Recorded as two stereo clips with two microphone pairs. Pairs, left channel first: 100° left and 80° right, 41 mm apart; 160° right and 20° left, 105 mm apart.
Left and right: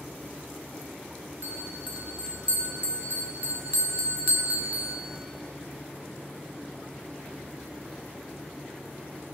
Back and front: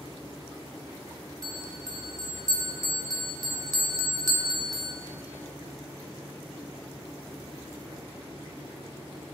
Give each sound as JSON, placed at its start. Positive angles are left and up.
{"t": 1.4, "sound": "a bell", "azimuth_deg": -35, "distance_m": 1.4}